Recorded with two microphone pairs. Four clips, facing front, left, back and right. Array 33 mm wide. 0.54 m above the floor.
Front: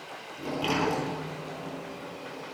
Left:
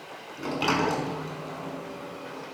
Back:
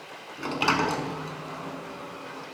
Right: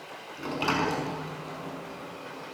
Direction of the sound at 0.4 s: Straight behind.